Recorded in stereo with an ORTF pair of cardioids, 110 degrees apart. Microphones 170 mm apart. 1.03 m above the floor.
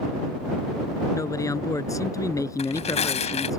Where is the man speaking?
20° left.